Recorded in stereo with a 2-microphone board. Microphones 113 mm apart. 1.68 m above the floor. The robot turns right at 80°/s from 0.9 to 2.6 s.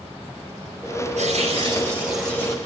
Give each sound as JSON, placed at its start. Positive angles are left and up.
{"t": 1.2, "sound": "tearing paper", "azimuth_deg": -85, "distance_m": 9.0}